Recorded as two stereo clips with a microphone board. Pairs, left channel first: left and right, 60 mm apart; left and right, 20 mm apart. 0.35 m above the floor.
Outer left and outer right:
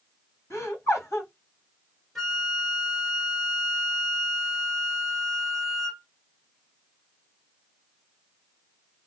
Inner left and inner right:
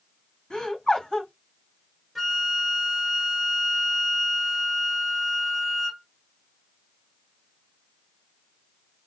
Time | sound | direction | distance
0.5 | laughter | 50° left (ahead or behind) | 2 m
2.1 | a flute | centre (ahead or behind) | 2.0 m